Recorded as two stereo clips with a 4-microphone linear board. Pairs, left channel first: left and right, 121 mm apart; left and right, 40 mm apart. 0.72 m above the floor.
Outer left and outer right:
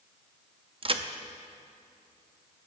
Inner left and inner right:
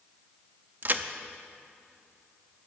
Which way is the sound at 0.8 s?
45° right (ahead or behind).